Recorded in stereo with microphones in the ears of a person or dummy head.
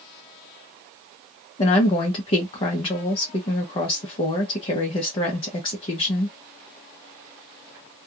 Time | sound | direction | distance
1.6 | a woman speaking | 30° left (ahead or behind) | 0.7 m